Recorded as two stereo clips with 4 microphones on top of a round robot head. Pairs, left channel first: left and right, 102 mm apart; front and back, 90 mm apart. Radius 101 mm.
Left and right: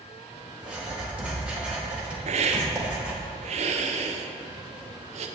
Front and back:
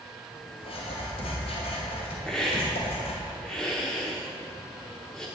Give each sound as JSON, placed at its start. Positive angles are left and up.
{"t": 0.6, "sound": "writing", "azimuth_deg": -10, "distance_m": 4.0}
{"t": 2.3, "sound": "a hiss", "azimuth_deg": -85, "distance_m": 1.1}